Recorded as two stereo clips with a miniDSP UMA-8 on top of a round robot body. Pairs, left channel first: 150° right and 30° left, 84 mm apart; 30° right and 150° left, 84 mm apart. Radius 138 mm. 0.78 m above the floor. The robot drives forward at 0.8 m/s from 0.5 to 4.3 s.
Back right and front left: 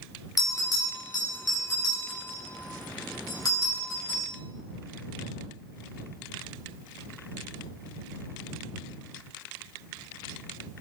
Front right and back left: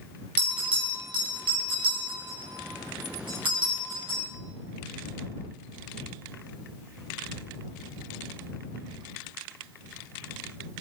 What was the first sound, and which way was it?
A bell, 160° left.